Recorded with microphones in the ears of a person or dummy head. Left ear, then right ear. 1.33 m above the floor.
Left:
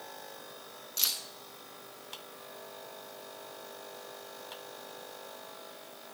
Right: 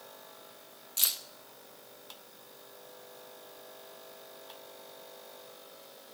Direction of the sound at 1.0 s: 15° right (ahead or behind).